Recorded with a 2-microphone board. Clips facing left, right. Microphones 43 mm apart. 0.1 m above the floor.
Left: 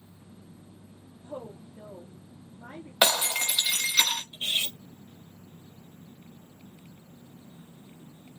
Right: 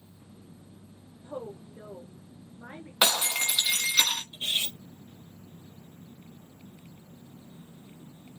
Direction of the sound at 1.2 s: 20° right (ahead or behind).